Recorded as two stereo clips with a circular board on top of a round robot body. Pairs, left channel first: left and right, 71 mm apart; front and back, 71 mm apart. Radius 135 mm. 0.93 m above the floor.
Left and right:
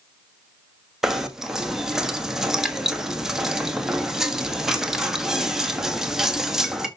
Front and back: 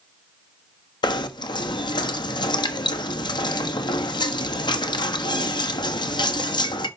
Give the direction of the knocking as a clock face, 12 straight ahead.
12 o'clock.